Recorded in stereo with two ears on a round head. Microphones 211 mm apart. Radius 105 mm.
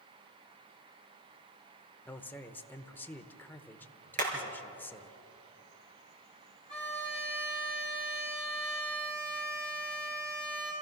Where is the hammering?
35° right (ahead or behind), 4.5 m.